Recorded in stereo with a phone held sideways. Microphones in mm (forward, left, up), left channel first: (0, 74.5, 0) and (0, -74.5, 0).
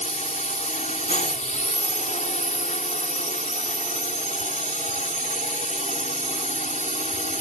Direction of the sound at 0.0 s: 60° left (ahead or behind).